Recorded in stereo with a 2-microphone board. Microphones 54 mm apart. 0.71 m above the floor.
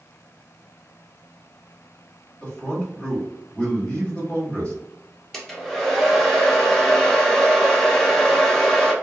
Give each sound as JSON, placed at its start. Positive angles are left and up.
{"t": 2.4, "sound": "a man speaking", "side_deg": 25, "distance_m": 1.6}
{"t": 5.3, "sound": "a hair dryer", "side_deg": 5, "distance_m": 0.7}